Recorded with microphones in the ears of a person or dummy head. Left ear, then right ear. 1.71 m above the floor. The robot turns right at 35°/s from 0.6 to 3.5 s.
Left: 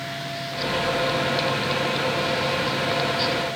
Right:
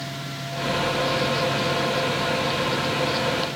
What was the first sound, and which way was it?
Only background noise.